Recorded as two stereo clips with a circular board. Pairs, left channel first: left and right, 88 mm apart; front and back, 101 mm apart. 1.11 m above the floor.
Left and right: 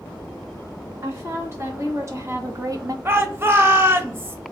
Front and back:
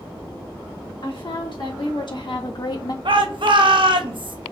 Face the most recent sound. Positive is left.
turn(degrees=-150)